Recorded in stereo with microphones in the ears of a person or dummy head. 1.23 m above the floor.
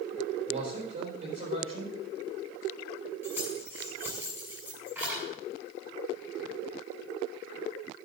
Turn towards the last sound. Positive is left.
turn(degrees=-10)  # may be behind; listen again after turning